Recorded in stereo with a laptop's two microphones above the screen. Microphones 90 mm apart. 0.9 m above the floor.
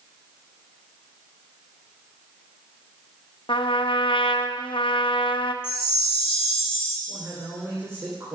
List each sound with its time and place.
3.5 s a trumpet: 65° left (ahead or behind), 0.6 m
5.6 s a chime: 80° left, 1.5 m
7.1 s a man speaking: 30° right (ahead or behind), 3.5 m